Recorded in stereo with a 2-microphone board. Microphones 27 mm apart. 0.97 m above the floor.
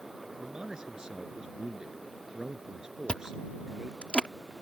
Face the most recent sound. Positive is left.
turn(degrees=40)  # may be behind; listen again after turning